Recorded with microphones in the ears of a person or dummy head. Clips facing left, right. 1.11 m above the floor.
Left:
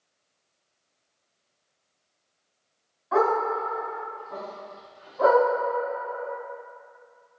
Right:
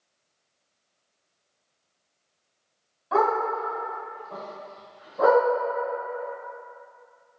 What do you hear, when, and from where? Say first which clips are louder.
3.1 s a dog barking: left 1 dB; 45° right (ahead or behind), 1.3 m; by 5.4 s 60° right (ahead or behind), 1.7 m